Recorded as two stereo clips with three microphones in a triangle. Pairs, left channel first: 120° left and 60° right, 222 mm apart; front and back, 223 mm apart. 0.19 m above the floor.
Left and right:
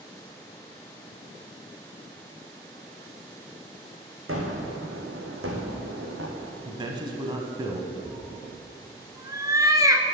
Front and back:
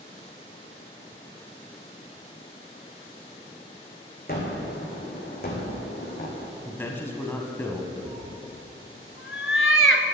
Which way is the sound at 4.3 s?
45° right.